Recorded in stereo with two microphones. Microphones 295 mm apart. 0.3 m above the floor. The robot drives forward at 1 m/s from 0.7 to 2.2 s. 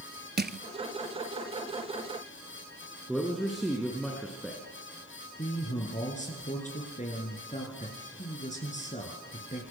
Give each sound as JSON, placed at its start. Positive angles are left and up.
{"t": 0.4, "sound": "crushing", "side_deg": -35, "distance_m": 0.8}
{"t": 3.1, "sound": "a man speaking", "side_deg": 0, "distance_m": 3.5}
{"t": 5.4, "sound": "a man speaking", "side_deg": 25, "distance_m": 4.5}